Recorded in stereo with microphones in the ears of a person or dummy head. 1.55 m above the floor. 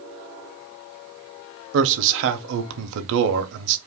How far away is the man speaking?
About 0.7 m.